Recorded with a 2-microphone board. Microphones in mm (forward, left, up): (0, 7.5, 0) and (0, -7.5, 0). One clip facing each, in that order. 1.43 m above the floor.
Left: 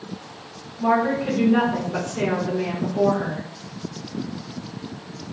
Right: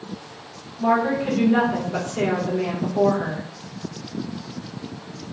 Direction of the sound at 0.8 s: 30° right (ahead or behind).